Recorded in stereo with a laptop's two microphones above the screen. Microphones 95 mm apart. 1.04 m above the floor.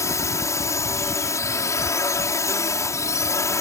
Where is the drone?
30° left (ahead or behind).